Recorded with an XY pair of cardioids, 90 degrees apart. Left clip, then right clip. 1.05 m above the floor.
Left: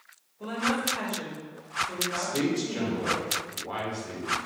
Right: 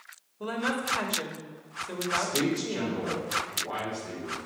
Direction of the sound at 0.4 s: 45° right.